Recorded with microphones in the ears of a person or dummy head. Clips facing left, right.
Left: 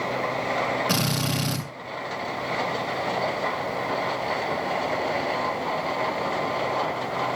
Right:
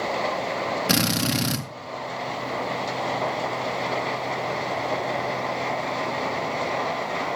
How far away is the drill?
About 2 m.